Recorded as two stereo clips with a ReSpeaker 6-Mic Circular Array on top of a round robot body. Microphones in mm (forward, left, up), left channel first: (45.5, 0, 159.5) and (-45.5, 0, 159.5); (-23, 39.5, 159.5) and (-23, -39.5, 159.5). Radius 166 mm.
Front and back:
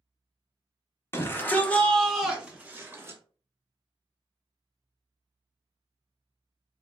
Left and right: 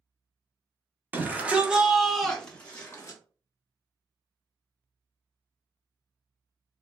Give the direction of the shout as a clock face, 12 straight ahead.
1 o'clock.